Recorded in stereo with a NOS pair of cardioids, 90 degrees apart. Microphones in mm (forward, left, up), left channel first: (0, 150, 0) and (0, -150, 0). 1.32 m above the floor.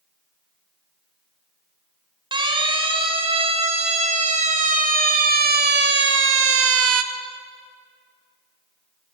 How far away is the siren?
About 6 m.